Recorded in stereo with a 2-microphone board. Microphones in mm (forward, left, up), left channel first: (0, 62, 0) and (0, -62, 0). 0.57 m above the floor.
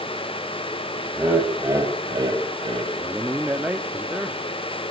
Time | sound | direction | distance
1.1 | laughter | 10° right (ahead or behind) | 3.5 m
3.0 | a man speaking | 10° right (ahead or behind) | 1.0 m